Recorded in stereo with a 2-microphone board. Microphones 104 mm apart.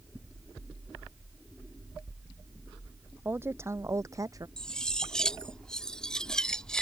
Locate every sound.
3.2 s a woman speaking: 20° right (ahead or behind); by 4.5 s 35° right (ahead or behind)
4.6 s cutlery clinking: 5° left (ahead or behind)